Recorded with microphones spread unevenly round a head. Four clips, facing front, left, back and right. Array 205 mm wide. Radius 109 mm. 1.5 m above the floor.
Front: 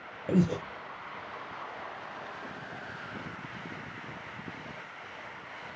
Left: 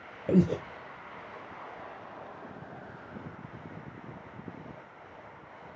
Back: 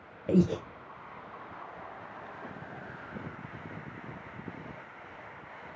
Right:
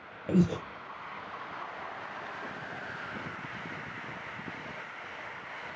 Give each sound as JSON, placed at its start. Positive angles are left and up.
{"t": 0.3, "sound": "breathing", "azimuth_deg": 100, "distance_m": 0.6}